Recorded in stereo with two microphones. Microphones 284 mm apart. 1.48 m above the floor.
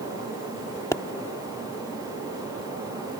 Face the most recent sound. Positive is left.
turn(degrees=10)  # may be behind; listen again after turning